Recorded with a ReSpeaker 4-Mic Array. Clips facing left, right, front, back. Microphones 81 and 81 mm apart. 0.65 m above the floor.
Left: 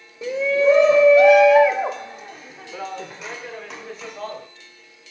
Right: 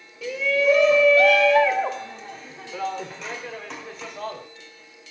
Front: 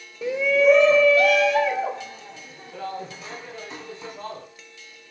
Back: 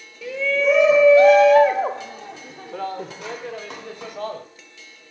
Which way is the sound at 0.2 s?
45° left.